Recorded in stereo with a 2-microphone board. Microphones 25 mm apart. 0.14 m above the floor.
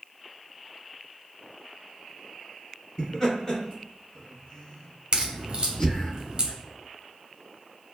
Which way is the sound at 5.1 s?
35° right (ahead or behind).